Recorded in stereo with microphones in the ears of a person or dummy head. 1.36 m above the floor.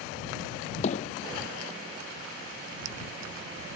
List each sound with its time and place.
0.8 s hammering: 45° left (ahead or behind)